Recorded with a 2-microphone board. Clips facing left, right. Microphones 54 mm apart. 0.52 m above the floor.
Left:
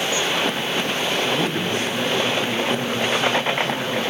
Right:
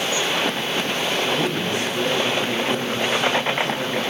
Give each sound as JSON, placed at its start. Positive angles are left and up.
{"t": 1.2, "sound": "a man speaking", "side_deg": 45, "distance_m": 4.5}